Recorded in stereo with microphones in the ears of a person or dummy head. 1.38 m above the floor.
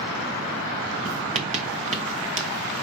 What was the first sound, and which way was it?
Writing, 40° right (ahead or behind).